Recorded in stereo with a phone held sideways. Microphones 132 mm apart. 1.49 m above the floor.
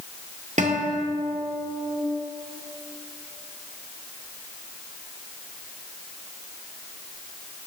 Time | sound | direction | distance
0.6 | a guitar | 60° right (ahead or behind) | 1.9 m